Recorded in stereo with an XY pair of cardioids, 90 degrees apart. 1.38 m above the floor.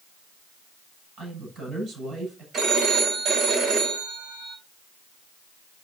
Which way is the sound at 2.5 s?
65° right.